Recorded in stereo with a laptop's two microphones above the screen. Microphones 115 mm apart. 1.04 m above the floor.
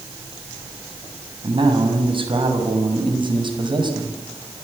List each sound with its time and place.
1.4 s a man speaking: 55° right (ahead or behind), 6.5 m; by 4.2 s 45° right (ahead or behind), 5.5 m